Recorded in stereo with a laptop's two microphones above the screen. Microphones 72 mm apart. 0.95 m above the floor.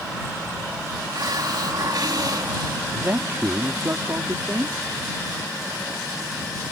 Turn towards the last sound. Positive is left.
turn(degrees=-40)  # may be behind; listen again after turning